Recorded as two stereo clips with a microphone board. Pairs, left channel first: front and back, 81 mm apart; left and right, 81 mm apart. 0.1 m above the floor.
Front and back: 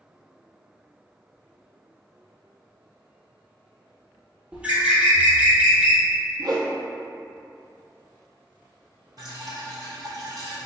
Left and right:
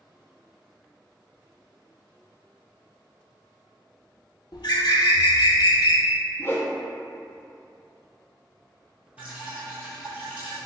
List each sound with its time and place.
4.5 s a bird: 105° left, 0.6 m
6.4 s a whoosh: 150° left, 0.6 m
9.2 s dripping: 160° right, 1.3 m